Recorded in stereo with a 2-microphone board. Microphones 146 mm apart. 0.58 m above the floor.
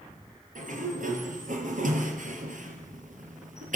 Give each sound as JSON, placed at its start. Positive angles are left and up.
{"t": 0.6, "sound": "a sliding door", "side_deg": -65, "distance_m": 4.0}